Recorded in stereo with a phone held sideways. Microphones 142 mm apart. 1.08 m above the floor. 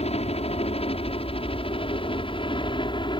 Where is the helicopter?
45° left (ahead or behind); by 3.2 s 35° left (ahead or behind).